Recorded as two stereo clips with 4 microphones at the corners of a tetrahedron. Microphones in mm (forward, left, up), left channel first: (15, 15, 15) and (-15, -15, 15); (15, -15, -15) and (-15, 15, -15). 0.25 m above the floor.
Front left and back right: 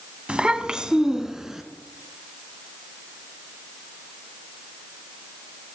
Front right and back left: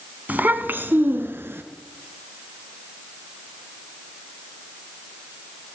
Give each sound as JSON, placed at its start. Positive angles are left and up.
{"t": 0.3, "sound": "a child speaking", "azimuth_deg": 165, "distance_m": 1.0}